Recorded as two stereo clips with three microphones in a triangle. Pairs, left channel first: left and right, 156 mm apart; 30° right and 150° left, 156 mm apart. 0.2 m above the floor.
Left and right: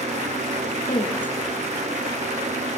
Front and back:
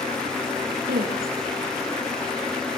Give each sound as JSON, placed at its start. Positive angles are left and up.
{"t": 0.9, "sound": "a woman speaking", "azimuth_deg": 150, "distance_m": 5.0}